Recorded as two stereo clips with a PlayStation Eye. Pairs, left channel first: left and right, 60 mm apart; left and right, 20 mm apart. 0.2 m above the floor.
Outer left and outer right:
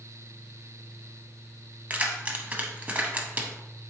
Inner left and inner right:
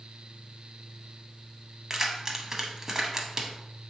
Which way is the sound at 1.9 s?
25° right (ahead or behind).